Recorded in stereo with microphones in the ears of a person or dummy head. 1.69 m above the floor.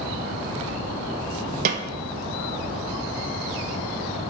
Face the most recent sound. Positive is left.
turn(degrees=-45)  # may be behind; listen again after turning